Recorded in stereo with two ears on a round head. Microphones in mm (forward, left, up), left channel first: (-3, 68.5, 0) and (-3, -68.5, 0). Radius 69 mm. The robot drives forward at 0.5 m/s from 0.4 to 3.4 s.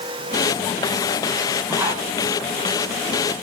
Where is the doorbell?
No doorbell in this recording.